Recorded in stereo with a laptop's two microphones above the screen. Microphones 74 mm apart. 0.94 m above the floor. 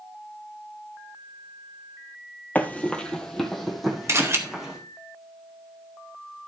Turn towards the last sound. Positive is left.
turn(degrees=-40)  # may be behind; listen again after turning